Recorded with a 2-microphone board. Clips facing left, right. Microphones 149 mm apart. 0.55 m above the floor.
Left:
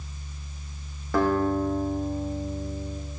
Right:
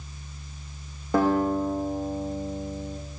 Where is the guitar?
20° right (ahead or behind), 8.5 m.